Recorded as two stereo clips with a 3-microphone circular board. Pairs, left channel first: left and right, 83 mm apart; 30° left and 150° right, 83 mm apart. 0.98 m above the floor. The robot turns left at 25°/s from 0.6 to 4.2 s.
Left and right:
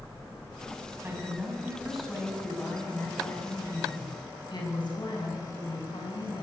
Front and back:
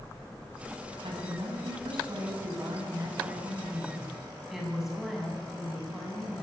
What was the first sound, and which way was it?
A woman speaking, 155° right.